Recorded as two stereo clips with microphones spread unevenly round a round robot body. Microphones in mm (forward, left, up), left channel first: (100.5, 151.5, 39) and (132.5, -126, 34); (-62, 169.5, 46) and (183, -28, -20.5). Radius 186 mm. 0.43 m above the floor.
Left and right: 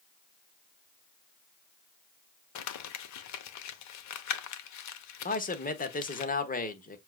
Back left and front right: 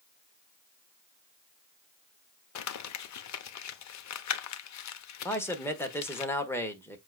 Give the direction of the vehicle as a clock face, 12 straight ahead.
I don't hear a vehicle.